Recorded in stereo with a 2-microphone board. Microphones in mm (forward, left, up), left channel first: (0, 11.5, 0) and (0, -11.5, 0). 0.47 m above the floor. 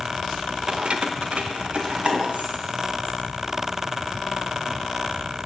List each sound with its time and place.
0.7 s keys jangling: 40° right (ahead or behind), 0.6 m; by 4.8 s 60° right (ahead or behind), 5 m